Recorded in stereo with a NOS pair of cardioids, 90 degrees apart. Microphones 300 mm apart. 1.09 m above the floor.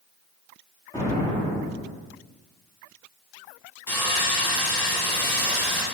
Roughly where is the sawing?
Ahead.